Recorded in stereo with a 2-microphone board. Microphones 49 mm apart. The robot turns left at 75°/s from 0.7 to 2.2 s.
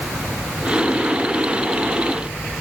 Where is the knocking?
No knocking in this recording.